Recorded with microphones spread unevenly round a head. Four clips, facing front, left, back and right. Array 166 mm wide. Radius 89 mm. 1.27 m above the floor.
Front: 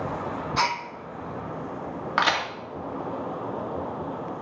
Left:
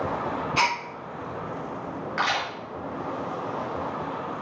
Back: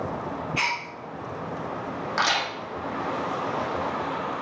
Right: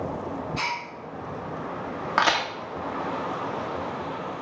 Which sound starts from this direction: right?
A crack, at 2.2 s.